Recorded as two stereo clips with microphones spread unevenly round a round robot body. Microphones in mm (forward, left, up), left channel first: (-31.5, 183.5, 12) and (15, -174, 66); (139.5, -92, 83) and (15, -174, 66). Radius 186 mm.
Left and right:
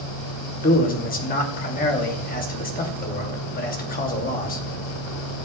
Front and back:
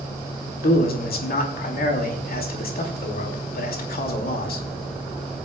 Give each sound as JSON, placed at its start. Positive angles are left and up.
{"t": 0.6, "sound": "a man speaking", "azimuth_deg": 35, "distance_m": 2.5}